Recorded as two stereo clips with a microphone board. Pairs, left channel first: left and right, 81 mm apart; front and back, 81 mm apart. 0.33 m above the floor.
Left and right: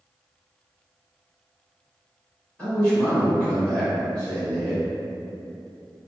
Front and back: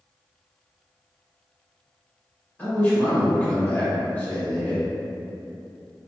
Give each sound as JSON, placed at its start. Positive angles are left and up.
{"t": 2.6, "sound": "a man speaking", "azimuth_deg": 40, "distance_m": 1.6}